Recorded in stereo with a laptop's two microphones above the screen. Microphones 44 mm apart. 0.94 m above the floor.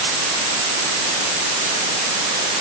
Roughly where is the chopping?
No chopping in this recording.